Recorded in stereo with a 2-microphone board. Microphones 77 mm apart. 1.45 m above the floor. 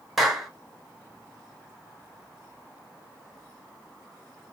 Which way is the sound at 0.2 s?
5° right (ahead or behind).